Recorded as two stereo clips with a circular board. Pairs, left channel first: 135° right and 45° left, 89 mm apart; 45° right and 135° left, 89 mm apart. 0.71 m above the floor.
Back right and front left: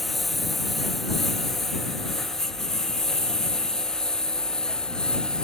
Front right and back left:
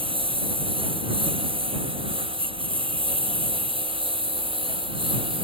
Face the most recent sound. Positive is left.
turn(degrees=145)